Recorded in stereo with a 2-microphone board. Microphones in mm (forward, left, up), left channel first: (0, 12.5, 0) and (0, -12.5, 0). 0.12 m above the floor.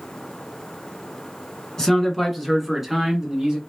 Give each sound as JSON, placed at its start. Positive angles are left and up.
{"t": 1.8, "sound": "a man speaking", "side_deg": 20, "distance_m": 1.5}